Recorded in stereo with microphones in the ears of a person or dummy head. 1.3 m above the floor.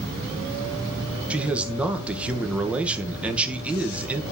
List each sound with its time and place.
1.3 s a man speaking: 5° right (ahead or behind), 1.3 m